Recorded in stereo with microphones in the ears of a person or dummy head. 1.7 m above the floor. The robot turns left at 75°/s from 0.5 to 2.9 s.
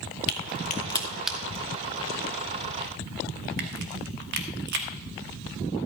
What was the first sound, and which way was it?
A crack, 55° left (ahead or behind).